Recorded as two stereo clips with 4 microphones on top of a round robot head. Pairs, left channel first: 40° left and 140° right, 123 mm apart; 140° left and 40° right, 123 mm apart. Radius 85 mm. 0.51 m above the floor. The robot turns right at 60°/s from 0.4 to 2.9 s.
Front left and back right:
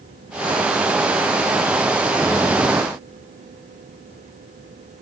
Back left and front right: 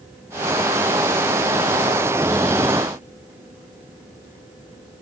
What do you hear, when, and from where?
Only background noise.